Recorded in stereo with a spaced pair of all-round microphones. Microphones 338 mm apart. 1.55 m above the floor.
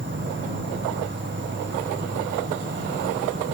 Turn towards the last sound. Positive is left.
turn(degrees=-30)  # may be behind; listen again after turning